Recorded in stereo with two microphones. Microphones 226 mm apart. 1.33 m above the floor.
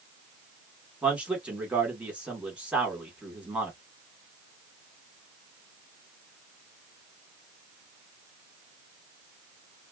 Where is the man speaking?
5° right (ahead or behind), 1.7 m.